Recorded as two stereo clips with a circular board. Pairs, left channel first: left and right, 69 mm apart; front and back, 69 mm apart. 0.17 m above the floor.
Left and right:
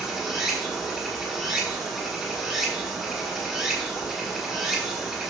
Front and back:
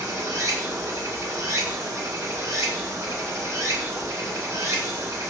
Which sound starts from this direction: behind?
Running water, at 0.0 s.